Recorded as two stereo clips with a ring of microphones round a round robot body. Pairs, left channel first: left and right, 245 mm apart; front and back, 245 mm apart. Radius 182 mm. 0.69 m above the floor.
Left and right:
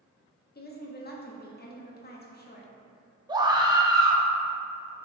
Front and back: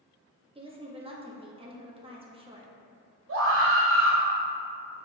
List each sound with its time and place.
0.6 s a woman speaking: 120° left, 1.4 m
3.3 s a scream: 160° right, 1.7 m